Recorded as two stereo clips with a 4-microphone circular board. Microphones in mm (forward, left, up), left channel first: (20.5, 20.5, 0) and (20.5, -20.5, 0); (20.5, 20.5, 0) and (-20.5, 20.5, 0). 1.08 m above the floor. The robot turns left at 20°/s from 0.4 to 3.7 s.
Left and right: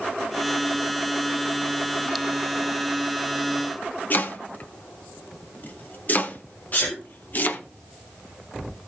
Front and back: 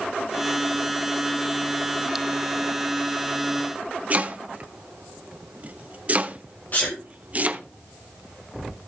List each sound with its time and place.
4.1 s chopping: 130° left, 0.9 m
6.7 s a sneeze: 45° left, 2 m